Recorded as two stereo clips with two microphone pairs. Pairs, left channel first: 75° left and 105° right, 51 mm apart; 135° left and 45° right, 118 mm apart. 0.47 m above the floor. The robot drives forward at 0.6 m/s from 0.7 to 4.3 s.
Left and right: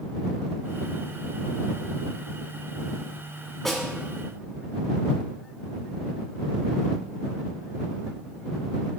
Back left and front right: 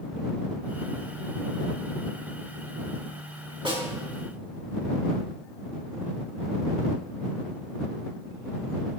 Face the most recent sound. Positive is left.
turn(degrees=-10)